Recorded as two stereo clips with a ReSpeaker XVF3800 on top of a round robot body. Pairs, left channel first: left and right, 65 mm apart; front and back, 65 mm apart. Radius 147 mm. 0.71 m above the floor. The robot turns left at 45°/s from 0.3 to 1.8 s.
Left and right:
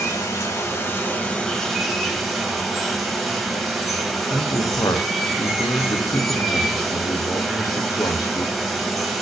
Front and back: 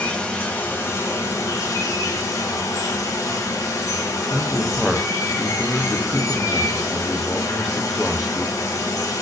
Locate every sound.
0.0 s running water: 65° left, 1.2 m; by 9.2 s 5° right, 1.2 m
4.3 s a man speaking: 90° left, 0.6 m